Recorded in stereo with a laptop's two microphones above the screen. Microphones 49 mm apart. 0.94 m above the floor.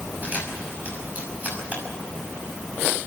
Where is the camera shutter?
35° right (ahead or behind), 6 m.